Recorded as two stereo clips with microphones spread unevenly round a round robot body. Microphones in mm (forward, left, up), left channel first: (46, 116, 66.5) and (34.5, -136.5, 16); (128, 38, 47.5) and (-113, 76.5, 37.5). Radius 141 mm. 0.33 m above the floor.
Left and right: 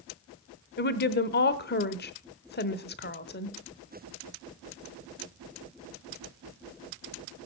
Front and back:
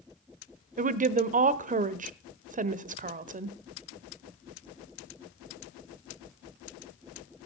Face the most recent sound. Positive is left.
turn(degrees=135)